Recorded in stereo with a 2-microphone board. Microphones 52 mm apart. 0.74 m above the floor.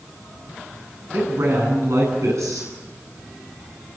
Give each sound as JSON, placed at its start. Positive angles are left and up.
{"t": 1.1, "sound": "a man speaking", "side_deg": -70, "distance_m": 9.5}